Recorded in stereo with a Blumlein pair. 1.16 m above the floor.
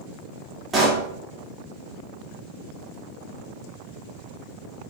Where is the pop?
10° right, 1.6 m.